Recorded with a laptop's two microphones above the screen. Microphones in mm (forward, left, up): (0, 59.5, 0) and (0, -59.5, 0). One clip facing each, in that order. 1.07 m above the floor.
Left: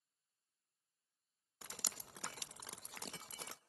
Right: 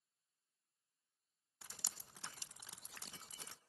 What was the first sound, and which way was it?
Dripping, 75° left (ahead or behind).